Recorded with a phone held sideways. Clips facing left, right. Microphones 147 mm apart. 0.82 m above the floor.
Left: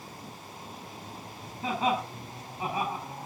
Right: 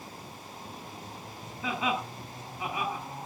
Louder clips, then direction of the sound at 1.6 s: Left 3 dB; 35° left (ahead or behind).